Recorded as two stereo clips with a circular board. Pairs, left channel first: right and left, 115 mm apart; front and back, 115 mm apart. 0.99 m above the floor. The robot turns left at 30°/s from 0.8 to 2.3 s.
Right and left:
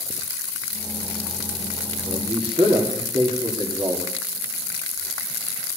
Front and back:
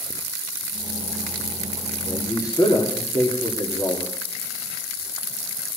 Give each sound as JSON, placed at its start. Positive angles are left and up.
{"t": 2.1, "sound": "a man speaking", "azimuth_deg": 60, "distance_m": 2.5}